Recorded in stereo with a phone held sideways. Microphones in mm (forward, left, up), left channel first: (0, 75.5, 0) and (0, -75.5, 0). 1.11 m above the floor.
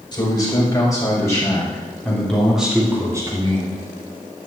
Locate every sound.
0.1 s a man speaking: 30° left (ahead or behind), 5.5 m; by 3.8 s 45° right (ahead or behind), 2.5 m